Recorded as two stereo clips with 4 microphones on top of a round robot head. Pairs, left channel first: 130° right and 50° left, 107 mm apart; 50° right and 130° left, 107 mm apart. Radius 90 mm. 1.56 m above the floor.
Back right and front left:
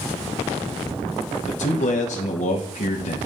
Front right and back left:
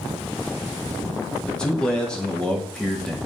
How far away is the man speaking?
About 1.4 m.